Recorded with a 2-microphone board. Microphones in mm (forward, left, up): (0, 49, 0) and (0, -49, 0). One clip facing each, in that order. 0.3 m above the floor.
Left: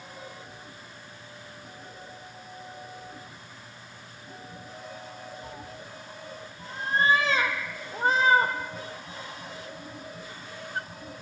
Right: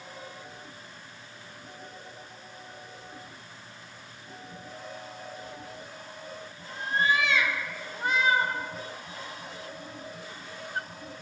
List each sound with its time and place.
5.4 s a cat meowing: 35° left (ahead or behind), 3 m